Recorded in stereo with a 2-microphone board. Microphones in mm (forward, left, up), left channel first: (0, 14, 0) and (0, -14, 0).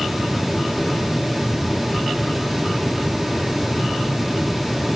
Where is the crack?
I don't hear a crack.